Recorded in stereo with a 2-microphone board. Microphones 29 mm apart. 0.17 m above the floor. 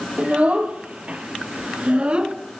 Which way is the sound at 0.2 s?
50° right (ahead or behind).